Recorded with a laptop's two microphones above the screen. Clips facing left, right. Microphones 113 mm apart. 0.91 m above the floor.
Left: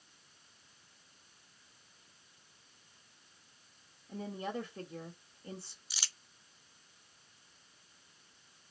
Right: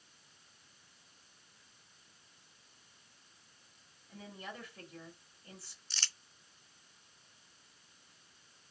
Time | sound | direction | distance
4.1 | a woman speaking | 45° left (ahead or behind) | 1.9 m
5.9 | crumpling | 10° left (ahead or behind) | 0.6 m